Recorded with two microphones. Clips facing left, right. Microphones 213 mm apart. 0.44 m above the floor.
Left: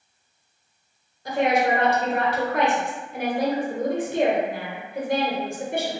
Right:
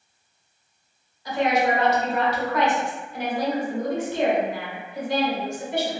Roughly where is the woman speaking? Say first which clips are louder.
Left 1 dB; left.